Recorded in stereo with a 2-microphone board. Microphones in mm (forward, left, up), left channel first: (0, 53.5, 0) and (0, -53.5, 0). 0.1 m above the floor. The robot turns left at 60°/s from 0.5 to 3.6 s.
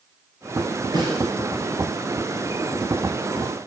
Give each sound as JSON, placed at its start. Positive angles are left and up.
{"t": 0.9, "sound": "a snare drum", "side_deg": -40, "distance_m": 1.8}